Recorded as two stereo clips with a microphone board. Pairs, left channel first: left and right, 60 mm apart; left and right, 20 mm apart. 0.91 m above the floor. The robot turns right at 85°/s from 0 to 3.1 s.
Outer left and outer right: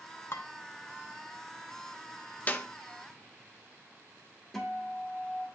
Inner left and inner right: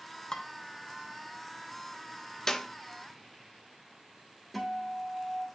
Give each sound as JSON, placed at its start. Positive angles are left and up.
{"t": 0.3, "sound": "dishes clattering", "side_deg": 50, "distance_m": 1.0}
{"t": 2.5, "sound": "a clap", "side_deg": 30, "distance_m": 0.7}
{"t": 4.5, "sound": "a guitar", "side_deg": 5, "distance_m": 2.0}